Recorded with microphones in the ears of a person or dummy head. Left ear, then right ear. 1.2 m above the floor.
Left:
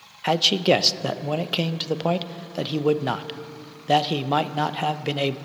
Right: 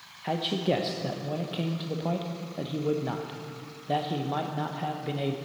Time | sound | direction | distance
0.2 | a man speaking | 55° left (ahead or behind) | 0.5 m